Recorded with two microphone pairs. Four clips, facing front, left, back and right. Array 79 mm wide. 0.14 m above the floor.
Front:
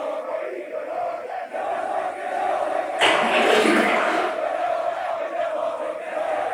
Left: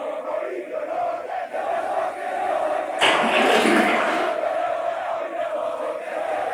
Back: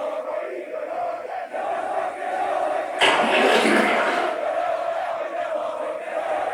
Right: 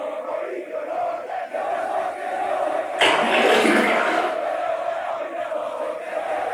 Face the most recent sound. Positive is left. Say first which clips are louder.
# right 1 dB, back 1 dB
turn(degrees=-110)